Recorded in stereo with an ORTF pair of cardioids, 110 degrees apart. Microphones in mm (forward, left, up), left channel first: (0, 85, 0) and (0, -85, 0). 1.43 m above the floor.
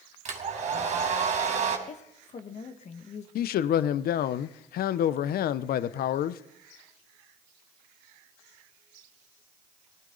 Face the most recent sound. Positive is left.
turn(degrees=65)